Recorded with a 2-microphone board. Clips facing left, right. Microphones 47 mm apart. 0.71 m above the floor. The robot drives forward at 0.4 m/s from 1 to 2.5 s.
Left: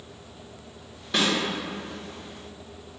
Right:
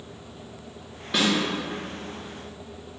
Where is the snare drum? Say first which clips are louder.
Right 1 dB; 5° right (ahead or behind), 1.1 m.